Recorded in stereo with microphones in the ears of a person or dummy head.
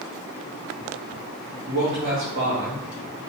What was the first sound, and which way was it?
A man speaking, 50° right (ahead or behind).